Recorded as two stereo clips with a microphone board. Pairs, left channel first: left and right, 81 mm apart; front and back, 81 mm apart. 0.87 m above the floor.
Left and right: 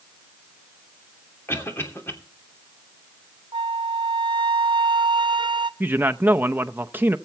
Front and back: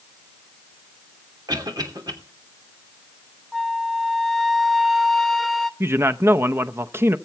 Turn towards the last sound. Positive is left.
turn(degrees=-140)